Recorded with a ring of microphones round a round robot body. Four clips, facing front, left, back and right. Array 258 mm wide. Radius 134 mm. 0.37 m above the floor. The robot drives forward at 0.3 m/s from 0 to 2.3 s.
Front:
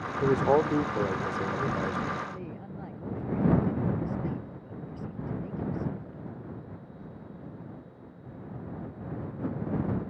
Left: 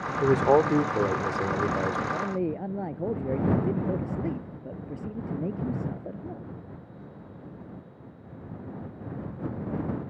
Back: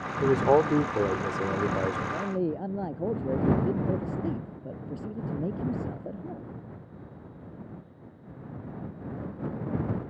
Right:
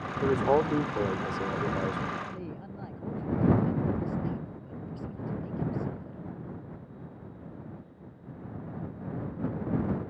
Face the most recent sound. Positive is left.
turn(degrees=135)